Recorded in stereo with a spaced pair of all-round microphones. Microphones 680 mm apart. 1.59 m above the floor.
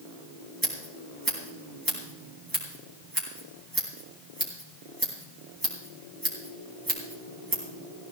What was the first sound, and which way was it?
Scissors, 30° right (ahead or behind).